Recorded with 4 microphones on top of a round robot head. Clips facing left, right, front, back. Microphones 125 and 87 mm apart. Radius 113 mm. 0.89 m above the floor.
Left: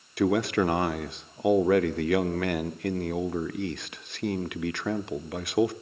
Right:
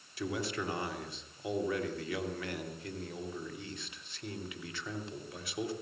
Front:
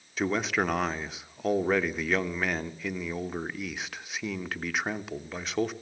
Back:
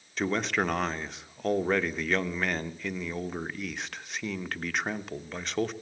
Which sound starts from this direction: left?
A man speaking, at 0.2 s.